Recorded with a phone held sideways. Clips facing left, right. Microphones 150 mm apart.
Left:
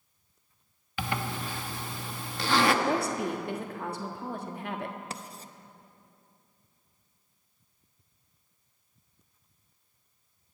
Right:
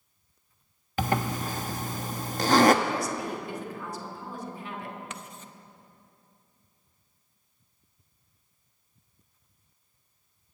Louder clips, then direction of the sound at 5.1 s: Left 1 dB; 35° left (ahead or behind).